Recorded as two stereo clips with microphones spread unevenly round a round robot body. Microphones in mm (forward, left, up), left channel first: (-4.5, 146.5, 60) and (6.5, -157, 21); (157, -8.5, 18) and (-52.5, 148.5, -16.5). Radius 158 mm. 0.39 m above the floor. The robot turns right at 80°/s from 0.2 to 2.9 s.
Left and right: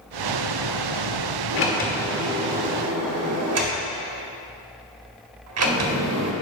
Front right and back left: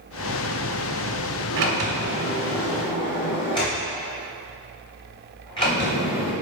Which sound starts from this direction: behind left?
A sliding door, at 1.5 s.